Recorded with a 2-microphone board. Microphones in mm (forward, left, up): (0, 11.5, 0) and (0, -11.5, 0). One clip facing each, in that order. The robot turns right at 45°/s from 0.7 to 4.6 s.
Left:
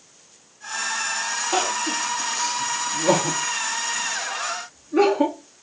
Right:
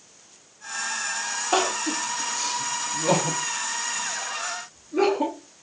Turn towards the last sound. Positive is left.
turn(degrees=65)  # may be behind; listen again after turning